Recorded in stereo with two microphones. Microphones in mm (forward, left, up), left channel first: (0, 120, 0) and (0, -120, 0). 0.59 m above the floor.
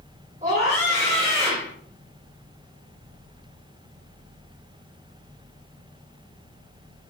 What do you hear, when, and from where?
0.4 s a scream: 30° right (ahead or behind), 2.0 m